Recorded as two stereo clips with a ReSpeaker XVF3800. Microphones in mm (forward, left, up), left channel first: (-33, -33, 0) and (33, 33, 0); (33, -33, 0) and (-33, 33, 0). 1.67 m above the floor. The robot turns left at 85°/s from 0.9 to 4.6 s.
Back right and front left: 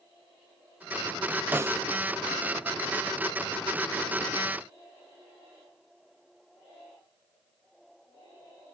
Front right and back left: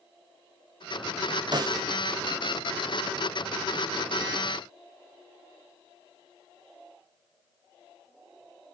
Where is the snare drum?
110° left, 0.6 m; by 1.8 s 85° left, 0.6 m.